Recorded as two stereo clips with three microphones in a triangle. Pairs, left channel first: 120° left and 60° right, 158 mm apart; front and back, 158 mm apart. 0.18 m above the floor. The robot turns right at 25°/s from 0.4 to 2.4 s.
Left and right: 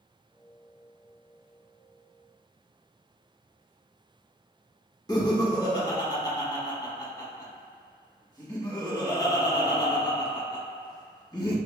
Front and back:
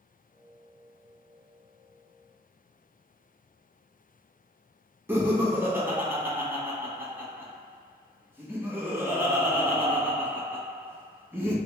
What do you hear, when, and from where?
5.1 s laughter: 120° left, 1.0 m